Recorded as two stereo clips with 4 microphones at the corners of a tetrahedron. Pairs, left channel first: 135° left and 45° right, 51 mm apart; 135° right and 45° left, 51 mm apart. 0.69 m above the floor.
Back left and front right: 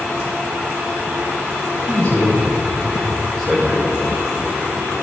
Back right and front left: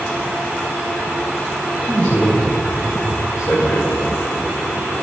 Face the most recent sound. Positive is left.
turn(degrees=-145)